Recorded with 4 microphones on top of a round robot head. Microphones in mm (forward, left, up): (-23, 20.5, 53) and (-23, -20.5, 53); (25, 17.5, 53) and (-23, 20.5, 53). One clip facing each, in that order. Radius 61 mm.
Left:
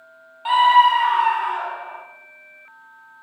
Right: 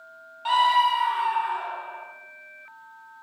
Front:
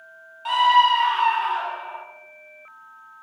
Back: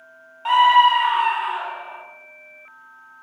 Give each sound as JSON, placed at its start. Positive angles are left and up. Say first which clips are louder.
{"t": 0.5, "sound": "a scream", "louder": "left 6 dB, back 3 dB", "azimuth_deg": 150, "distance_m": 0.6}